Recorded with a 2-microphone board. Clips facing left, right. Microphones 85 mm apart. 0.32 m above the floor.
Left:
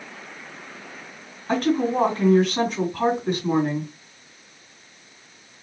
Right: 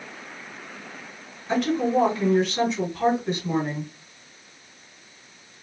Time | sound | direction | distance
1.5 | a woman speaking | 50° left (ahead or behind) | 2.5 m